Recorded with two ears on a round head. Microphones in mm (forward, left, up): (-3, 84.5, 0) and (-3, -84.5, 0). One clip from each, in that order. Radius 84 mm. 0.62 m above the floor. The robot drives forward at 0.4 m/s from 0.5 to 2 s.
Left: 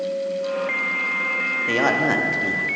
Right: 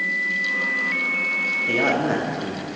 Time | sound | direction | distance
1.7 | a man speaking | 25° left (ahead or behind) | 0.7 m